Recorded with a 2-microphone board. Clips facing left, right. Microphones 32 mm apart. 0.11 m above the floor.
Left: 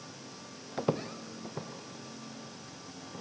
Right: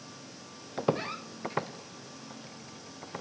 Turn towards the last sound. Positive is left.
turn(degrees=-65)  # may be behind; listen again after turning